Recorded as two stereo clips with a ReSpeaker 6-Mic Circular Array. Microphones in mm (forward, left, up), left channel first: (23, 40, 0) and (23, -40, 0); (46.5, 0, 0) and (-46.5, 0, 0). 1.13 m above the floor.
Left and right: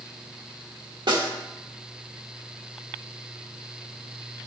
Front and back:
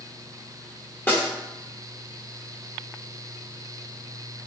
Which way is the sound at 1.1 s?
70° right.